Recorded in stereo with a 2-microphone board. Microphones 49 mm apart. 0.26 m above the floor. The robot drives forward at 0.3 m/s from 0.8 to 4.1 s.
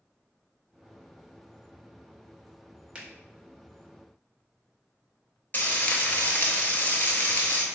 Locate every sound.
3.0 s a finger snap: 25° right (ahead or behind), 0.8 m
5.5 s frying: 30° left (ahead or behind), 0.7 m